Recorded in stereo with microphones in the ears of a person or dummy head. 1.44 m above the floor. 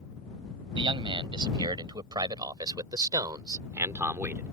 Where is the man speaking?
30° right (ahead or behind); by 4.5 s 15° right (ahead or behind).